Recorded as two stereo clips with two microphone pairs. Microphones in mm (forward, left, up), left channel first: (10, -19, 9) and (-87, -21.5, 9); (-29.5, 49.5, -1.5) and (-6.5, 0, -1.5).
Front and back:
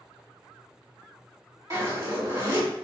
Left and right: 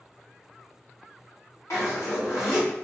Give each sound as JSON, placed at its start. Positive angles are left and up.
{"t": 1.7, "sound": "a zipper", "azimuth_deg": 130, "distance_m": 1.5}